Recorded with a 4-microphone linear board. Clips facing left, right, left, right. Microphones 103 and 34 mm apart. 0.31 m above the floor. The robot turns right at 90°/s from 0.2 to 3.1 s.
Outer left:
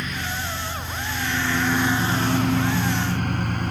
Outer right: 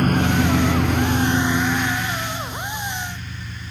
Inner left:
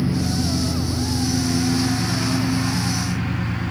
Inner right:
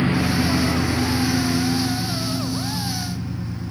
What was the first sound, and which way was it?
A lawn mower, 50° right (ahead or behind).